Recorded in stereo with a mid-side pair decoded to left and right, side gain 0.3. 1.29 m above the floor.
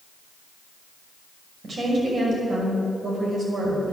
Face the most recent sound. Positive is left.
turn(degrees=-65)